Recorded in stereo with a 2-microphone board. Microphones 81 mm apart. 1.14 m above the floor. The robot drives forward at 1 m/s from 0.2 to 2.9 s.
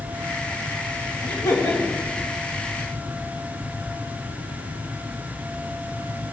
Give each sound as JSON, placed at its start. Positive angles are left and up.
{"t": 1.2, "sound": "laughter", "side_deg": 45, "distance_m": 3.5}